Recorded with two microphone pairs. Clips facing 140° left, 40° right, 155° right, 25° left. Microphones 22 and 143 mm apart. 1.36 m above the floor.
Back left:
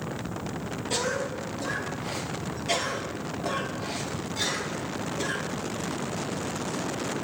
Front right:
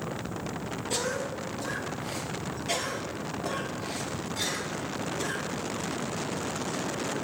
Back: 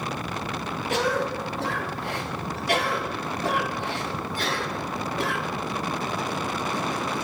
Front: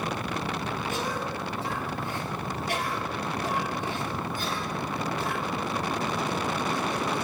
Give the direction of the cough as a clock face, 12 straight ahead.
5 o'clock.